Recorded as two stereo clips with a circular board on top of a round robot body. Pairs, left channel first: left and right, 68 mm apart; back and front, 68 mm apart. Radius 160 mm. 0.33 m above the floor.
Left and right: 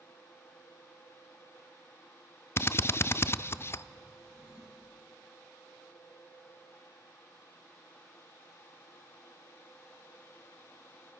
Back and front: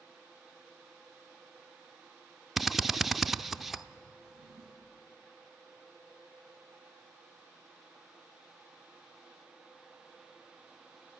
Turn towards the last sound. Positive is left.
turn(degrees=-35)